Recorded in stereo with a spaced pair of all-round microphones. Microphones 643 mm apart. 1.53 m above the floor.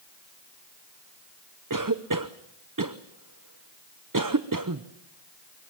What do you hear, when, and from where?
1.7 s a cough: 30° right (ahead or behind), 0.8 m